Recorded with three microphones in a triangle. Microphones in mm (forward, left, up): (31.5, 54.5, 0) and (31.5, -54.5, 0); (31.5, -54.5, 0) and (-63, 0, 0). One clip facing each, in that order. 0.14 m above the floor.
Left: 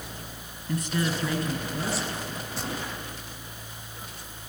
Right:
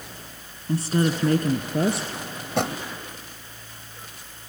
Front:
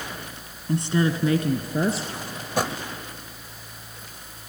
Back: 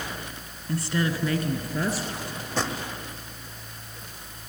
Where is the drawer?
110° right, 1.6 m.